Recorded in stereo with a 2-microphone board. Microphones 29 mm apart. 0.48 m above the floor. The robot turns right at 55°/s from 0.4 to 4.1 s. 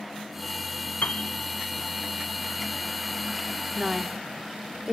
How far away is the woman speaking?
About 0.7 m.